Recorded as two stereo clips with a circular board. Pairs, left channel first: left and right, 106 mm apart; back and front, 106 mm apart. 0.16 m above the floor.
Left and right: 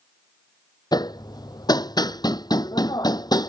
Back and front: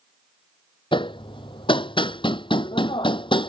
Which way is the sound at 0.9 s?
140° left.